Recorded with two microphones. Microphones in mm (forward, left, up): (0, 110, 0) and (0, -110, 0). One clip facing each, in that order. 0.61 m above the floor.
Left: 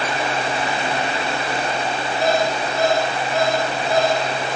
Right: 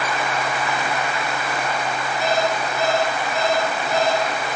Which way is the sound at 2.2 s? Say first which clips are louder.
Left 2 dB; 85° left.